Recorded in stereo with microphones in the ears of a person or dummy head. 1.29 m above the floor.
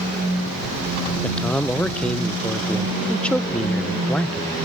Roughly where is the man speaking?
Centre.